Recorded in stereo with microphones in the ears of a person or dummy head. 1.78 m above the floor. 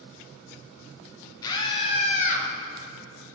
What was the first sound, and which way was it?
A scream, 20° left (ahead or behind).